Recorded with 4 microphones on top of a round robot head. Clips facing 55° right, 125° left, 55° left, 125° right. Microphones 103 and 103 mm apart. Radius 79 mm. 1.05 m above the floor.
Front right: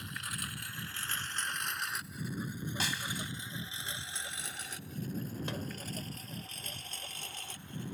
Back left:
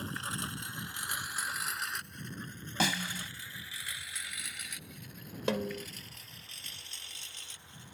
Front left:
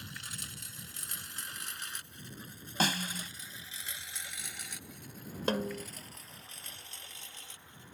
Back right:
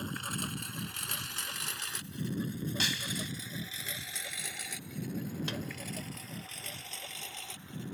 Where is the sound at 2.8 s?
110° left.